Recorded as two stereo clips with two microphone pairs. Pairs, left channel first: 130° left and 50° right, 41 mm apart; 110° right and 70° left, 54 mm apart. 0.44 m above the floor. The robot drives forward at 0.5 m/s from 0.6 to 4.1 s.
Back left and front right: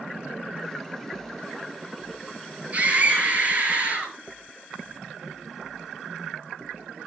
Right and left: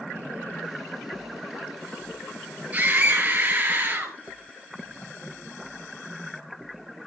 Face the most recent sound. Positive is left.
turn(degrees=10)